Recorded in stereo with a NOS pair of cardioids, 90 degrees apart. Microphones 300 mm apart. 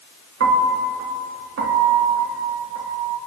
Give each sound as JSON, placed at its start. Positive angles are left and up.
{"t": 0.4, "sound": "a piano", "azimuth_deg": -50, "distance_m": 4.0}